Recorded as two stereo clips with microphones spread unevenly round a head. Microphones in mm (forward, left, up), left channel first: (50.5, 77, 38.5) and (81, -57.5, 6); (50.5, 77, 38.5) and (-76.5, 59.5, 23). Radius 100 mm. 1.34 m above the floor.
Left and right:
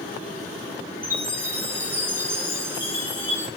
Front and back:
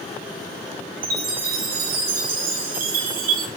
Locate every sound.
1.0 s a chime: 155° right, 0.7 m